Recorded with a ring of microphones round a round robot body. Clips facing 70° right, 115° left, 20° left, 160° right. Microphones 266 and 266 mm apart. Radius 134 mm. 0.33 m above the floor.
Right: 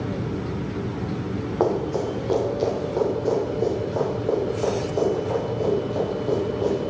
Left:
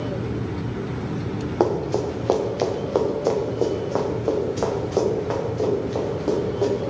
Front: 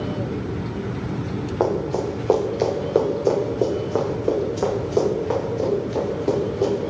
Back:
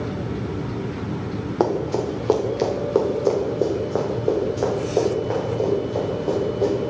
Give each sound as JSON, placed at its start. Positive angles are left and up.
{"t": 1.6, "sound": "running footsteps", "azimuth_deg": 155, "distance_m": 2.5}